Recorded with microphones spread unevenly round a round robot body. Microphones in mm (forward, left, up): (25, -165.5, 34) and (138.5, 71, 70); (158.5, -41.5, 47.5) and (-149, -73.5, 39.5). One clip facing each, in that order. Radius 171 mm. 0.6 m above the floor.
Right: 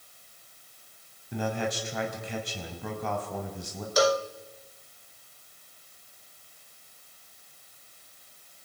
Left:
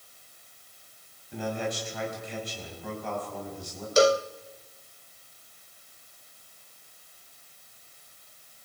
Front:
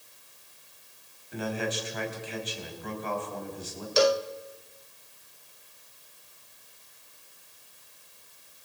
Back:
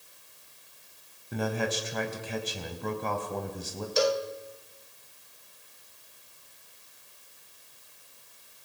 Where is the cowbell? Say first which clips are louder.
Left 3 dB, front 3 dB; straight ahead, 1.0 m.